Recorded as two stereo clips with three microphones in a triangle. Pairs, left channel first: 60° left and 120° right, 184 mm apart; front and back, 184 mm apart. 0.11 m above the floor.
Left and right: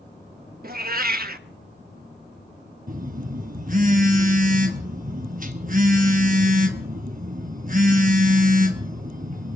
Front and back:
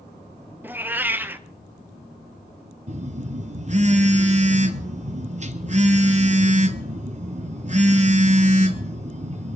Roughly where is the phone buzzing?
Behind right.